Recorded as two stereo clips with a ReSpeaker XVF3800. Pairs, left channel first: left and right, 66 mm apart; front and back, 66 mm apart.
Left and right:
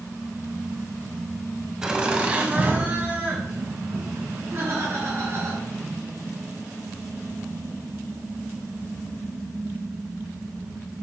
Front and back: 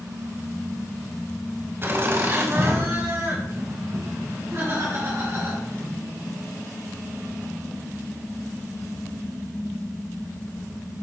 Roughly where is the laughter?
Behind.